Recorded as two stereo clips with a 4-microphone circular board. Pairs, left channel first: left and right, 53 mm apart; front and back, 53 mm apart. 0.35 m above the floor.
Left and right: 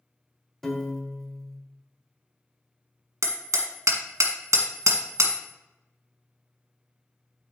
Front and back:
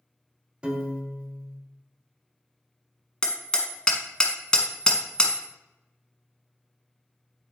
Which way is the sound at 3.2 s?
75° right.